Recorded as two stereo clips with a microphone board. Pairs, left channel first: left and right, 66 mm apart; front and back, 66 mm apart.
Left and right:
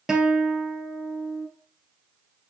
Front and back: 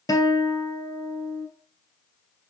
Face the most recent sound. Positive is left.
turn(degrees=-5)